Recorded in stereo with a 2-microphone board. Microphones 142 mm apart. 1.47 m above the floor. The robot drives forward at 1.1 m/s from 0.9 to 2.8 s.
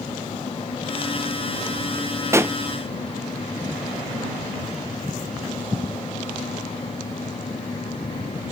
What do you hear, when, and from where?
2.3 s a pop: 20° right (ahead or behind); by 2.6 s 15° right (ahead or behind)